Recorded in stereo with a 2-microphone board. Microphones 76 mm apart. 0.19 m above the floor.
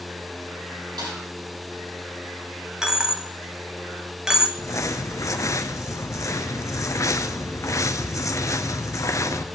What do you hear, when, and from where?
1.0 s a snare drum: 80° right, 6 m
2.8 s a dropped coin: 10° right (ahead or behind), 0.9 m
4.6 s crumpling: 50° left (ahead or behind), 0.7 m